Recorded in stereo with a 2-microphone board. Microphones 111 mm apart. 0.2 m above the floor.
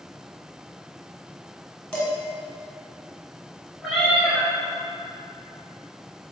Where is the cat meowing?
Centre (ahead or behind), 1.4 m.